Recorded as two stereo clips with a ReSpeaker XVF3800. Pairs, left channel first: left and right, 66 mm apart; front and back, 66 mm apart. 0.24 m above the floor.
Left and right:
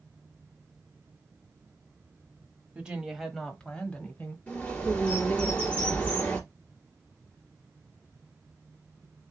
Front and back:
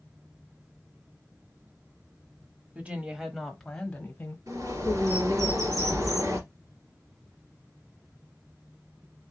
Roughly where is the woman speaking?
Behind right.